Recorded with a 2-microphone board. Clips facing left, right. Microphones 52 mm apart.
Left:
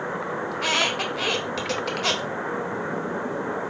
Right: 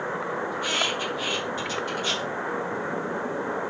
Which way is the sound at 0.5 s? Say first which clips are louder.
Left 5 dB; 70° left (ahead or behind).